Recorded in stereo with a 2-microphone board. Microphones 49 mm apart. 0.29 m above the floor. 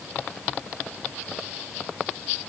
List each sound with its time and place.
Only background noise.